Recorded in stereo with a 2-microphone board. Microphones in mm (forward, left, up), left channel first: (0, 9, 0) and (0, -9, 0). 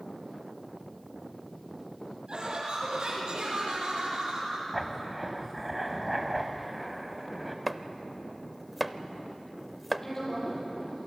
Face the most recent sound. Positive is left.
turn(degrees=25)  # may be behind; listen again after turning